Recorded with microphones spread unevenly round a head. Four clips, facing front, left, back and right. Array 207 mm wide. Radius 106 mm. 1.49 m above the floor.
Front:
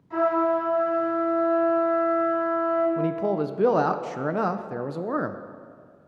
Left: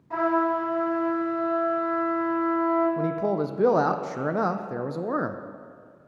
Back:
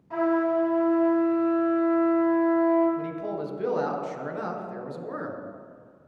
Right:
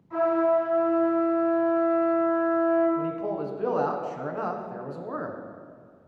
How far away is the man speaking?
About 0.6 m.